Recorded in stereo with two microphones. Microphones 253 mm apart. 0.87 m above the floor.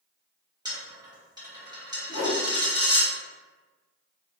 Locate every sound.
0.7 s a dropped coin: 15° right (ahead or behind), 1.0 m
2.1 s a whoosh: 75° left (ahead or behind), 1.1 m